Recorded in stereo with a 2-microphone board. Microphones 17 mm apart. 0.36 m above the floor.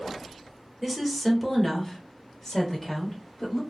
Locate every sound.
0.8 s a woman speaking: 5° right (ahead or behind), 1.1 m; by 3.6 s 25° left (ahead or behind), 1.3 m